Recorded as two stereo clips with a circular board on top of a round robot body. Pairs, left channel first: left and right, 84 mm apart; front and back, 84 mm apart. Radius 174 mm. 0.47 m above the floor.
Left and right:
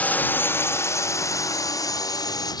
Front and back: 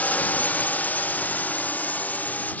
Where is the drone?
45° left; by 2.6 s 70° left.